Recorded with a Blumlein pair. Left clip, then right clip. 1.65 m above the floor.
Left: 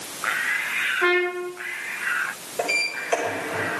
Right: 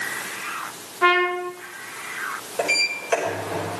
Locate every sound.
1.0 s a trumpet: 15° right, 1.7 m
2.6 s a sliding door: 15° right, 5.5 m